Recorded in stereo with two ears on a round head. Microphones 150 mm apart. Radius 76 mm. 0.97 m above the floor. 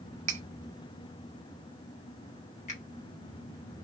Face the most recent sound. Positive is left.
turn(degrees=40)  # may be behind; listen again after turning